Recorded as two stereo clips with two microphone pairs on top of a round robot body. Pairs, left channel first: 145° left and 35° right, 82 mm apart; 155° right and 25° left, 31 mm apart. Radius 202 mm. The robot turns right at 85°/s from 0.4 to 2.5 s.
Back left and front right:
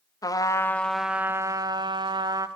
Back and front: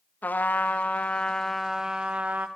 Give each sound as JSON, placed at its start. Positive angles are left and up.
{"t": 0.2, "sound": "a trumpet", "azimuth_deg": -175, "distance_m": 1.7}